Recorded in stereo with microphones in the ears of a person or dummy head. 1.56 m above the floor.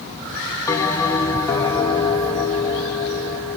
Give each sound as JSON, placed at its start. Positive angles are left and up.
{"t": 0.7, "sound": "a bell", "side_deg": 15, "distance_m": 0.8}